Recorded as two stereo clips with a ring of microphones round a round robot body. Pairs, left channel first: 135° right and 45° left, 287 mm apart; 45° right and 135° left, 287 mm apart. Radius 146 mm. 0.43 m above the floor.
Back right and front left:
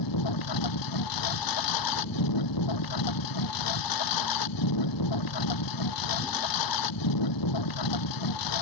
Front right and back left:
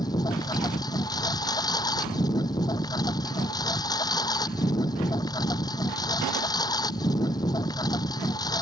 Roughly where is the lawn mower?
Behind right.